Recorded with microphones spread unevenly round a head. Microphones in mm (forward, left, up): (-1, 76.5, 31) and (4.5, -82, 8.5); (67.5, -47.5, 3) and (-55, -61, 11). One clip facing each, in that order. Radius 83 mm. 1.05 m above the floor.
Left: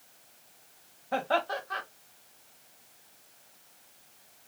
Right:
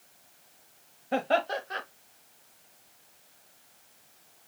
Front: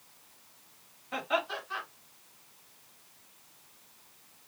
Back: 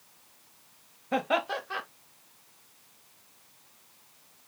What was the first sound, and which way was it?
Laughter, 150° right.